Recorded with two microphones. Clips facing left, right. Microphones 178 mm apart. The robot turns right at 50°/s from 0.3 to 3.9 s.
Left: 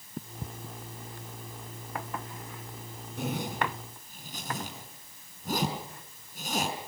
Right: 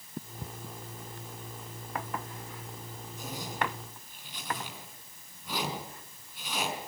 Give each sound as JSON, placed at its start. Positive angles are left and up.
{"t": 3.2, "sound": "a zipper", "side_deg": 80, "distance_m": 4.5}